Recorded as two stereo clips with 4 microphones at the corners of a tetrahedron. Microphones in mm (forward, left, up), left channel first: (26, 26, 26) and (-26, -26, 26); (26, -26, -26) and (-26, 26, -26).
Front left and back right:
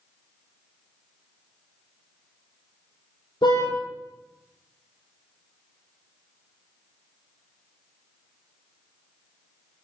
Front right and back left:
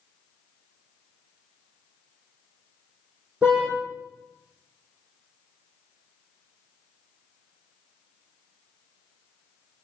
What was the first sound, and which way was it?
A car horn, 60° left.